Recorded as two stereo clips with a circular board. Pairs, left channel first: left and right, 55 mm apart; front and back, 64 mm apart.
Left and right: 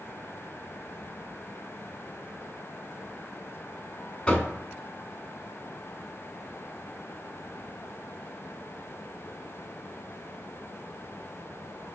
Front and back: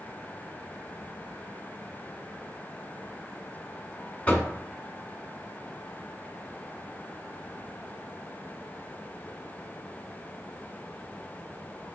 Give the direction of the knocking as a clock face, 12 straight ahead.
11 o'clock.